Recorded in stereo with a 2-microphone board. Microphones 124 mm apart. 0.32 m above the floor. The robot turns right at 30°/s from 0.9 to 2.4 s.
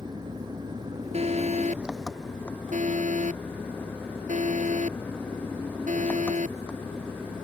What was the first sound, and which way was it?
An engine running, 35° right.